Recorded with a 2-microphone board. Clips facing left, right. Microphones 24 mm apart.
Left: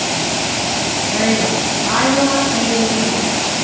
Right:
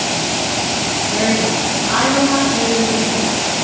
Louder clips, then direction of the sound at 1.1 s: Left 1 dB; 55° left (ahead or behind).